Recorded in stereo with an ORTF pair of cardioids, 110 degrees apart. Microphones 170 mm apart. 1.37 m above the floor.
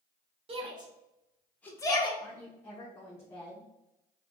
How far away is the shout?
About 1.2 m.